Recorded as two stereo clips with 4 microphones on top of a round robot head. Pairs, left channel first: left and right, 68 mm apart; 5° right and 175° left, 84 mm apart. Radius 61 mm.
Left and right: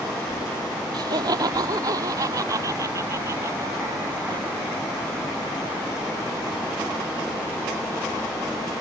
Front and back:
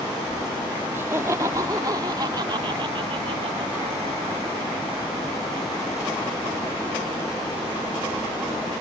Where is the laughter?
115° right; by 4.5 s 140° right.